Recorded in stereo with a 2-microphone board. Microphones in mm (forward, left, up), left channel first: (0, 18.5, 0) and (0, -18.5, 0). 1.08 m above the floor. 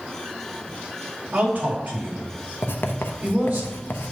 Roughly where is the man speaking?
Right.